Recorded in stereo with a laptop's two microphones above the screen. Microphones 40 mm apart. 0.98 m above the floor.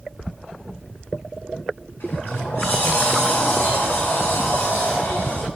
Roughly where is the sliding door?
Left.